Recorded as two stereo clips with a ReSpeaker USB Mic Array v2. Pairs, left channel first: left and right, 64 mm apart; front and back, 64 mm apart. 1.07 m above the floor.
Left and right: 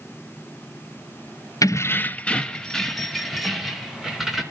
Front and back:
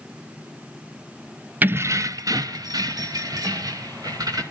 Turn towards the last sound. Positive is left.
turn(degrees=-175)